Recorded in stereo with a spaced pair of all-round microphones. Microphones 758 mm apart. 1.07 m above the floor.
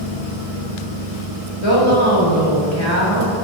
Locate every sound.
1.6 s a woman speaking: 40° left (ahead or behind), 3.5 m